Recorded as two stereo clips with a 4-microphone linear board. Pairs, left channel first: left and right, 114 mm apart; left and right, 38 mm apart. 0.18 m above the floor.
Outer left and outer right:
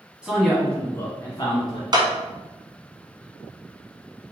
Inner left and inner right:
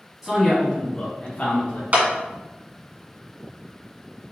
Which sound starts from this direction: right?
A clap, at 1.9 s.